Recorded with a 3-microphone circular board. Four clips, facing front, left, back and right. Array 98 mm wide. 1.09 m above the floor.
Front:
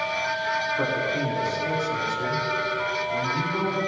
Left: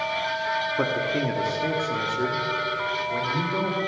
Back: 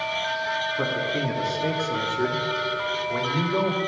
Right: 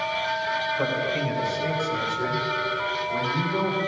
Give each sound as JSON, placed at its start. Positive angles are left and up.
{"t": 0.8, "sound": "a man speaking", "azimuth_deg": 90, "distance_m": 2.5}